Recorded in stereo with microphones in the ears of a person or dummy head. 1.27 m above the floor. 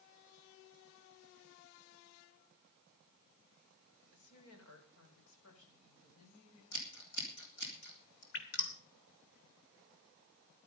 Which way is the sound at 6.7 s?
60° left (ahead or behind).